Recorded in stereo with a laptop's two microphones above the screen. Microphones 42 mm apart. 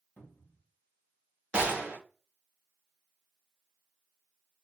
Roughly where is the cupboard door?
Left.